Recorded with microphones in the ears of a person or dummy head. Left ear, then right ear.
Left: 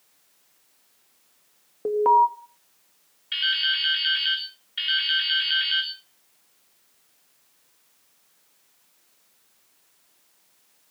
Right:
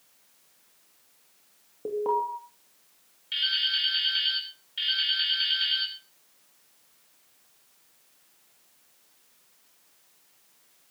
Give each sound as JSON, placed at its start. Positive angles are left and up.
{"t": 1.9, "sound": "an alarm", "side_deg": 55, "distance_m": 2.5}
{"t": 3.3, "sound": "dripping", "side_deg": 35, "distance_m": 4.0}